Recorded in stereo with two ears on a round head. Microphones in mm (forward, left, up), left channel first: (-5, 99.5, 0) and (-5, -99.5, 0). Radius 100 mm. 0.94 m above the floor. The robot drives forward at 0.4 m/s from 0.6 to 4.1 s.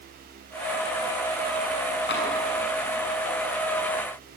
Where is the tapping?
55° left (ahead or behind), 7 m.